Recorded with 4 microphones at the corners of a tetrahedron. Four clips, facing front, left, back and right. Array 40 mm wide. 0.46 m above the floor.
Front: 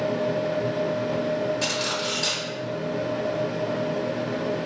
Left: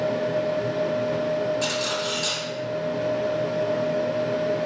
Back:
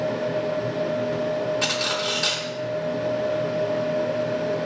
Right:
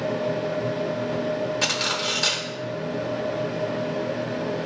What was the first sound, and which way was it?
Cutlery clinking, 115° right.